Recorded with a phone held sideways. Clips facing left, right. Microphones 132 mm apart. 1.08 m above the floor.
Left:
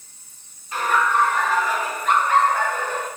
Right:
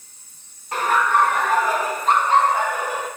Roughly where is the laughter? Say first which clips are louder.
Right 1 dB; right.